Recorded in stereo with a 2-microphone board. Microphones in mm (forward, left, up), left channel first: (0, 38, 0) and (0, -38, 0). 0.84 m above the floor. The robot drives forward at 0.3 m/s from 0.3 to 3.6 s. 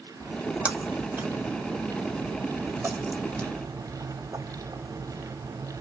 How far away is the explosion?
I don't hear an explosion.